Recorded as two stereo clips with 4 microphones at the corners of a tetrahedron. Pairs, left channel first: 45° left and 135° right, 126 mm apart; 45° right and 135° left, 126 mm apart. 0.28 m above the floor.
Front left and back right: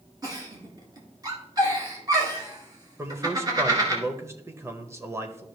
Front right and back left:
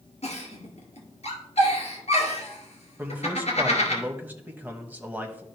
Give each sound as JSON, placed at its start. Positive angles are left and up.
{"t": 0.2, "sound": "a giggle", "azimuth_deg": -75, "distance_m": 2.0}
{"t": 3.0, "sound": "a man speaking", "azimuth_deg": -170, "distance_m": 0.9}